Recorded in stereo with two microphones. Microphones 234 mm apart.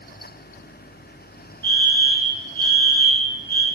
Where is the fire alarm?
50° right (ahead or behind), 3.5 m.